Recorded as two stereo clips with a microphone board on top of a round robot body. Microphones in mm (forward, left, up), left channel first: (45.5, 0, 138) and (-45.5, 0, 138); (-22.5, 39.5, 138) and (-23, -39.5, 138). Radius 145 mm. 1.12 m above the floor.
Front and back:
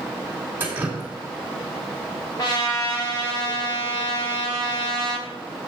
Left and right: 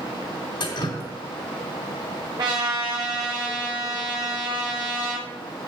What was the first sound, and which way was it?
Dripping, 110° left.